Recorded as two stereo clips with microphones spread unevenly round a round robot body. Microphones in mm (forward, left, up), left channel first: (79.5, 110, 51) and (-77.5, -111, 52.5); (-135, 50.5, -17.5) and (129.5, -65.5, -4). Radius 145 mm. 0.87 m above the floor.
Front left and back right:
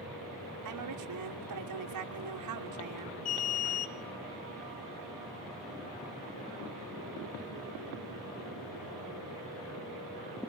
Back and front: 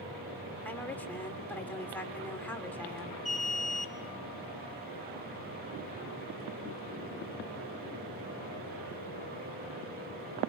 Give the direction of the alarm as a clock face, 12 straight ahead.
10 o'clock.